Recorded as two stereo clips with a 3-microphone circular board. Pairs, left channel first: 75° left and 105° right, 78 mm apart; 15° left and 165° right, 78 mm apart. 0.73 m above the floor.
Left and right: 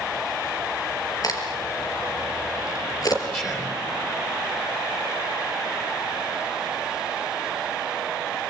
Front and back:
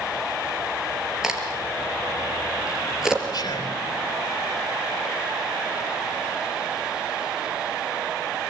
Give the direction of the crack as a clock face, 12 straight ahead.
8 o'clock.